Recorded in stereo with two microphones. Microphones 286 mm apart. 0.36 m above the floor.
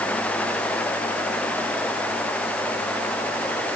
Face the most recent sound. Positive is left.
No sound to turn to.